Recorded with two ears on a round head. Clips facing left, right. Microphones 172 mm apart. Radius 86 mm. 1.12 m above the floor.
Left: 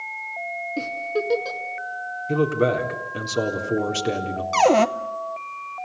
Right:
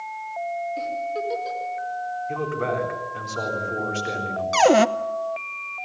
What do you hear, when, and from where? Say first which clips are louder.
0.8 s a giggle: left 1 dB; 65° left (ahead or behind), 2 m
2.3 s a man speaking: left 8 dB; 45° left (ahead or behind), 3.5 m
4.5 s a cupboard door: right 1 dB; 5° right (ahead or behind), 0.7 m